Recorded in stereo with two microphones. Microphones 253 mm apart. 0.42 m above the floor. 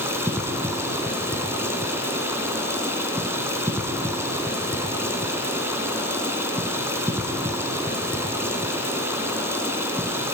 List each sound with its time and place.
0.0 s running water: 10° right (ahead or behind), 3.5 m